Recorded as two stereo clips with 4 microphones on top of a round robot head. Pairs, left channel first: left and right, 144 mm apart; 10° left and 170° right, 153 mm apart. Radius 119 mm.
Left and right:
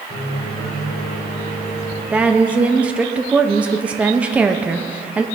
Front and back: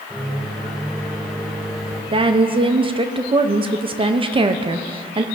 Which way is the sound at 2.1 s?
165° right.